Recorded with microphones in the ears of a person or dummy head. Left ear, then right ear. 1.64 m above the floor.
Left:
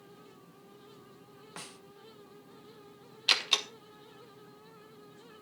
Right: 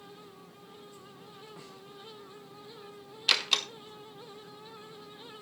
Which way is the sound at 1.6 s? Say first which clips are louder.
Left 3 dB; 50° left (ahead or behind).